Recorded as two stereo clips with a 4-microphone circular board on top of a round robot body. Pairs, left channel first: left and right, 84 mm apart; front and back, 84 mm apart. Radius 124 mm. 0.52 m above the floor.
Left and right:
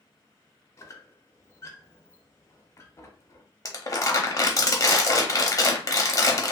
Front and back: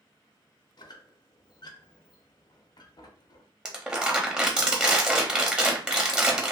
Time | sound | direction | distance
0.8 | a squeak | 35° left | 0.6 m
3.6 | crumpling | 105° left | 1.0 m